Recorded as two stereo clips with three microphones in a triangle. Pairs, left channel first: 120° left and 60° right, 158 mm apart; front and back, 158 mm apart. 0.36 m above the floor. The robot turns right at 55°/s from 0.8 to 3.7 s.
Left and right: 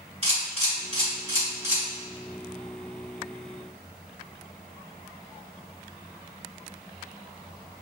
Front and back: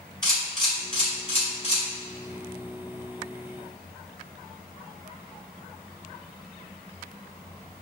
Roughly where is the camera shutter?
Ahead right.